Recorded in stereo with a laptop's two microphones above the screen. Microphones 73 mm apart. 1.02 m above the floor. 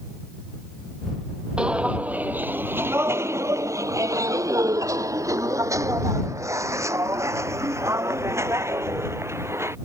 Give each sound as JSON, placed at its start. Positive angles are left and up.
{"t": 1.6, "sound": "footsteps", "side_deg": -15}